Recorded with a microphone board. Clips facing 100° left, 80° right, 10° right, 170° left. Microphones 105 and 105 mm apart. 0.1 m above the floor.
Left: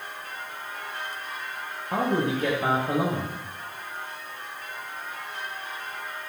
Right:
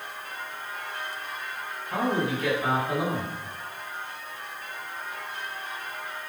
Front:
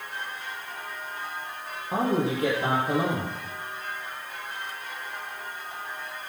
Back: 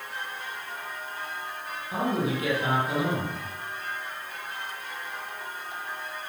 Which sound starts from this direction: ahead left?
A man speaking, at 1.9 s.